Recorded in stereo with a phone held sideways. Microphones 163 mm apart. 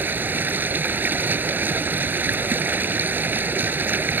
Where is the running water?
10° right (ahead or behind).